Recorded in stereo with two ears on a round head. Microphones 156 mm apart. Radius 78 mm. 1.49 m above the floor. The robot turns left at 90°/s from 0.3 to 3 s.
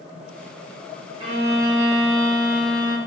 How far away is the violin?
About 0.9 m.